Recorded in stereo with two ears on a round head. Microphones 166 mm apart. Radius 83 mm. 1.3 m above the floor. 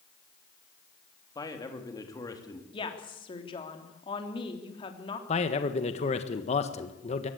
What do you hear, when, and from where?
1.4 s a man speaking: 20° left (ahead or behind), 3 m
2.7 s a woman speaking: 25° left (ahead or behind), 3 m
5.3 s a man speaking: 35° left (ahead or behind), 1.5 m